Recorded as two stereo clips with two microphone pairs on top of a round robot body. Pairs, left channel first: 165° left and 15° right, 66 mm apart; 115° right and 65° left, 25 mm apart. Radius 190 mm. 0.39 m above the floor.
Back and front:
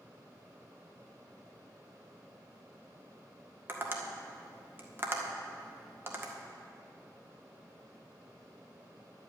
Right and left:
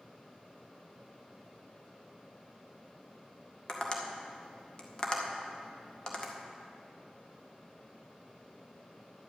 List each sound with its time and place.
3.7 s tapping: 65° right, 1.8 m